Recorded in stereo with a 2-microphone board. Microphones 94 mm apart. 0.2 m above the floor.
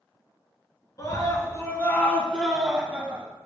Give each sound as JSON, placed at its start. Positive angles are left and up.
{"t": 1.0, "sound": "a scream", "side_deg": 40, "distance_m": 1.8}